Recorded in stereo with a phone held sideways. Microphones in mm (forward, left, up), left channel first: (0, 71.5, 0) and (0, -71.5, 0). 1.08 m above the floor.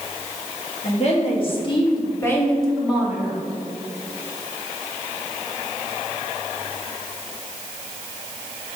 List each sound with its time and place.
0.8 s a woman speaking: 50° left (ahead or behind), 1.8 m; by 3.4 s 20° right (ahead or behind), 1.2 m